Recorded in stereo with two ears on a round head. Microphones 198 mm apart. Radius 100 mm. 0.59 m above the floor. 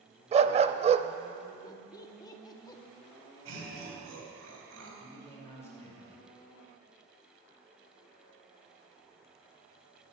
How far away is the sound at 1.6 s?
About 0.8 m.